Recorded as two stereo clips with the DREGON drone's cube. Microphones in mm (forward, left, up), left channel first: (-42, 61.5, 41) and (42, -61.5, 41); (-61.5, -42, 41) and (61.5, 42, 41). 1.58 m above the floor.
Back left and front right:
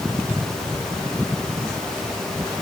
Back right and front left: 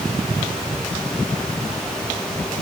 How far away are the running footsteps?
No running footsteps in this recording.